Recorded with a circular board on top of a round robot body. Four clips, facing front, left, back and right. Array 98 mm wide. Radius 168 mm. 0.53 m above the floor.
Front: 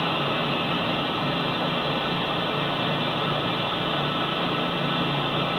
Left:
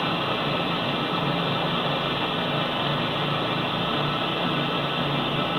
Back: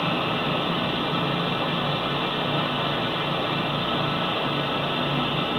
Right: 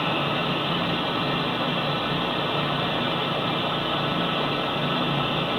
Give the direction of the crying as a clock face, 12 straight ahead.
I don't hear crying.